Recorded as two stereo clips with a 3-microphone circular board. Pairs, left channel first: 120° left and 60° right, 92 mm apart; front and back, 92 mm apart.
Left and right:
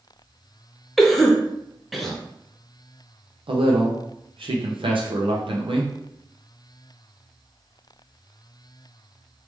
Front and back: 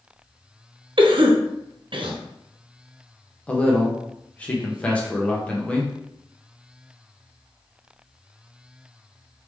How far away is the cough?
About 0.6 m.